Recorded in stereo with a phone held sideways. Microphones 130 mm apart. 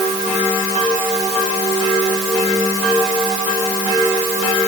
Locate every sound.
Only background noise.